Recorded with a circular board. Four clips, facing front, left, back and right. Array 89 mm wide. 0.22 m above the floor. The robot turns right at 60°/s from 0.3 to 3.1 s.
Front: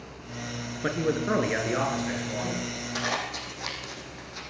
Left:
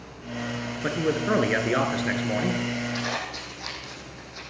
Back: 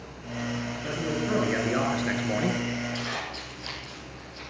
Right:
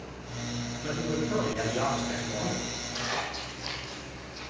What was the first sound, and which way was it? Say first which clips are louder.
A man speaking: left 6 dB, front 4 dB; 40° left.